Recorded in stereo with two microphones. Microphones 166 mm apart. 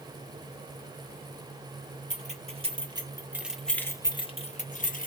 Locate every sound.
2.1 s keys jangling: 45° right (ahead or behind), 1.1 m; by 5.1 s 55° left (ahead or behind), 1.0 m